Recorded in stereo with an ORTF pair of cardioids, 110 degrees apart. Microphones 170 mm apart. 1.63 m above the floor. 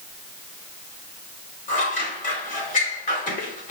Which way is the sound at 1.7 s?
50° left.